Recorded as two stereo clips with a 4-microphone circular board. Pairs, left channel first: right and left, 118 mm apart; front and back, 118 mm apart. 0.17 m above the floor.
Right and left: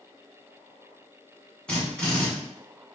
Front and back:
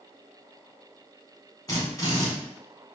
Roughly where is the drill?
Ahead.